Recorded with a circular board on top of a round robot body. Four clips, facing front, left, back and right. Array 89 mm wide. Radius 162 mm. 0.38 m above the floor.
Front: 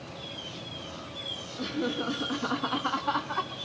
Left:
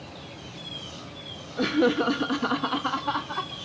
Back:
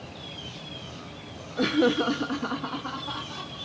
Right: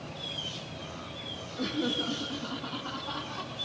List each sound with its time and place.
1.6 s laughter: 140° left, 1.5 m; by 3.5 s 40° left, 1.8 m